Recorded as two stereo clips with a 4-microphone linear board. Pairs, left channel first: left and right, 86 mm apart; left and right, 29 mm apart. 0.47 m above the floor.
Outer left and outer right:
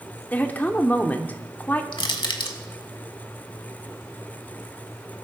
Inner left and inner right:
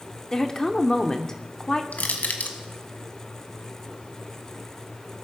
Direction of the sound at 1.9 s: 85° left.